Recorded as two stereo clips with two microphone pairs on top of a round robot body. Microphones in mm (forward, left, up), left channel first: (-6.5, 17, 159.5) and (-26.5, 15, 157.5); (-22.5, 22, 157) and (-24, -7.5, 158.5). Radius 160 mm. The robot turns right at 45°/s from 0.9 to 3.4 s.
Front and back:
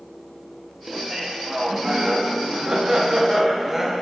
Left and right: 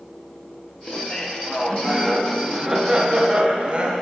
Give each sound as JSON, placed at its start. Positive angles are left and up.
{"t": 0.9, "sound": "laughter", "azimuth_deg": 125, "distance_m": 1.1}